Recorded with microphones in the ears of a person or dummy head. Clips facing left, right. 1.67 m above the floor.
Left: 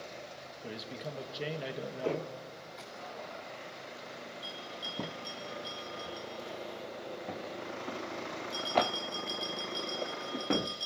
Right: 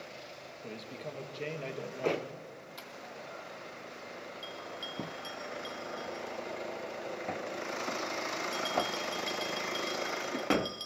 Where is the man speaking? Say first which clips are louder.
Left 1 dB; 5° left (ahead or behind), 1.8 m.